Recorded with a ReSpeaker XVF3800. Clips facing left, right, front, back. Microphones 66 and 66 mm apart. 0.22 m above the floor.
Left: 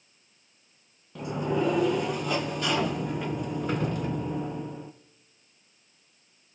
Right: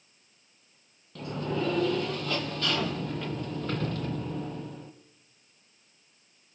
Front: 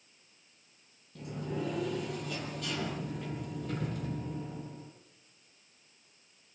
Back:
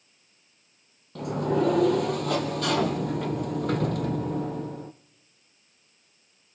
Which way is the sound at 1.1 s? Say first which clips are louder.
Left 4 dB, back 12 dB; 165° left.